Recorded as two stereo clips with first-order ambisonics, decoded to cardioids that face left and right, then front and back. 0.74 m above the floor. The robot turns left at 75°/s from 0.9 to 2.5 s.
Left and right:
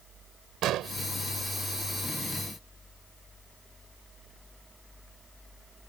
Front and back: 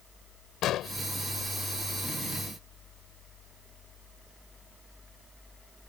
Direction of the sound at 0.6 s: 45° right.